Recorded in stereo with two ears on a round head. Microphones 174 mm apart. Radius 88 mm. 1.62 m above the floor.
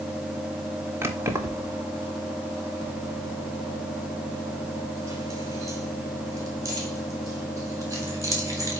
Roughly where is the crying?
I don't hear crying.